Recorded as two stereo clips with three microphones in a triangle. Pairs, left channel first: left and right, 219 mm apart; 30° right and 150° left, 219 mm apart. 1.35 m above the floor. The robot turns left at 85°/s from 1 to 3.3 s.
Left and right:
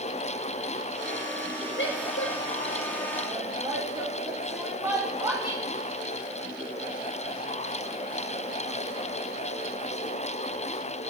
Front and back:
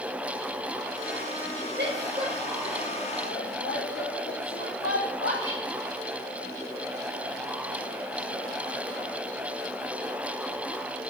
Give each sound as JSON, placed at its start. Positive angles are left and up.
{"t": 1.8, "sound": "a woman speaking", "azimuth_deg": 120, "distance_m": 0.9}